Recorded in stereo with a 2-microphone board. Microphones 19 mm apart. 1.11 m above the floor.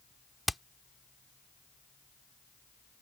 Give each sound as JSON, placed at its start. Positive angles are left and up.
{"t": 0.5, "sound": "hammering", "side_deg": -5}